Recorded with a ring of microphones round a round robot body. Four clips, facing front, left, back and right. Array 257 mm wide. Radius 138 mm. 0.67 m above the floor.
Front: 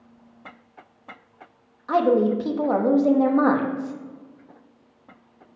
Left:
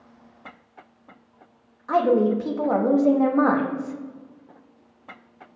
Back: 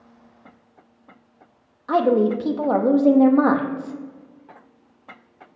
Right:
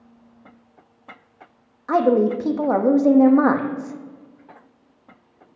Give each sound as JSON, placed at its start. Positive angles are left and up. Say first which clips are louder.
{"t": 1.9, "sound": "a woman speaking", "louder": "right 2 dB, back 1 dB", "azimuth_deg": -125, "distance_m": 0.9}